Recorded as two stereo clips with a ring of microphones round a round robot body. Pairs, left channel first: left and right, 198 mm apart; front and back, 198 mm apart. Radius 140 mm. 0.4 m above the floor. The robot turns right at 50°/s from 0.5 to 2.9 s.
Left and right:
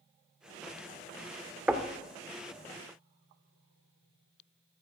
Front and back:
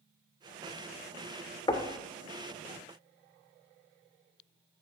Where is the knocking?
15° right, 1.0 m; by 1.9 s 5° right, 1.0 m.